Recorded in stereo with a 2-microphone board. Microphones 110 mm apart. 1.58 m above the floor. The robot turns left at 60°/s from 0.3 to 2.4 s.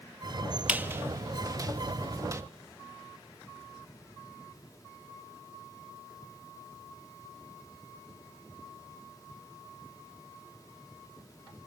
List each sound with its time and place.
0.7 s a squeak: 15° right (ahead or behind), 1.0 m; by 2.4 s 25° right (ahead or behind), 1.0 m